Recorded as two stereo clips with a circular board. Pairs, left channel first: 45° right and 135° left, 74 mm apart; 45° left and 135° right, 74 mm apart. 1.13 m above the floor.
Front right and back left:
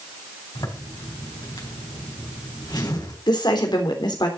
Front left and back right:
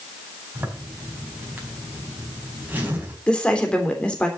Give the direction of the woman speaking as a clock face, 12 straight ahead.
1 o'clock.